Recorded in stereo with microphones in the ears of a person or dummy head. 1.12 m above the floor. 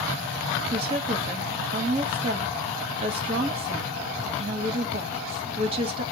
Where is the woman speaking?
35° right (ahead or behind), 1.5 m.